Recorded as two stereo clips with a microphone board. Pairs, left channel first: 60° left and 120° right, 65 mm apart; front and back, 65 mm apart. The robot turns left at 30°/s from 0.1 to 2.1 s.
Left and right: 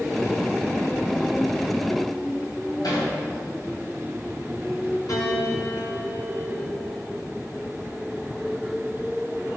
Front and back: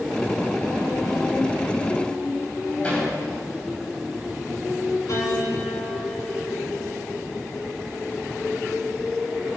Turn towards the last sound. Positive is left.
turn(degrees=30)